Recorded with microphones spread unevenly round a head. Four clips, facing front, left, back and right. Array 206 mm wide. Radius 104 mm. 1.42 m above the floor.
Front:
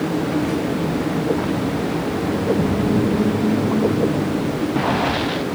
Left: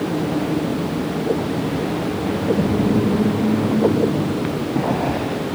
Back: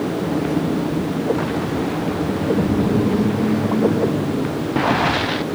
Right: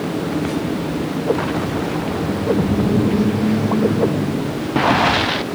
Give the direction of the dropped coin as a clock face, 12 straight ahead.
I don't hear a dropped coin.